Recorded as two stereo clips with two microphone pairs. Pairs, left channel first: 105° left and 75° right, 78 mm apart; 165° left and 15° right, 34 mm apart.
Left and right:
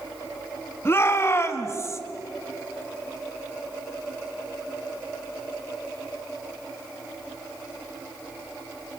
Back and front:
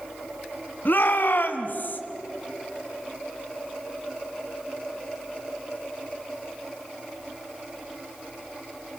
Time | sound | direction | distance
0.8 | a shout | 160° left | 2.5 m